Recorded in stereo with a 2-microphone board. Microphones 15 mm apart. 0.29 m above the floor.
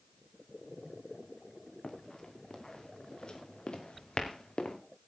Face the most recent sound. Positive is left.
turn(degrees=80)